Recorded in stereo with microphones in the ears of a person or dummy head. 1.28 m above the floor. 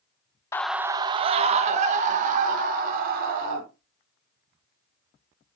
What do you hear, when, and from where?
0.5 s a scream: 15° left (ahead or behind), 0.5 m; by 3.6 s 50° right (ahead or behind), 3.5 m